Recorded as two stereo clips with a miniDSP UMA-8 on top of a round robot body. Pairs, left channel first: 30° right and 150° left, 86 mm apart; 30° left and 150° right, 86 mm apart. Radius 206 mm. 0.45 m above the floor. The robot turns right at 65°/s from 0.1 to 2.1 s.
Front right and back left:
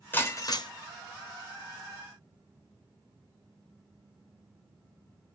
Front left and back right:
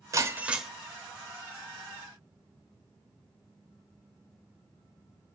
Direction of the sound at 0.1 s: 95° right.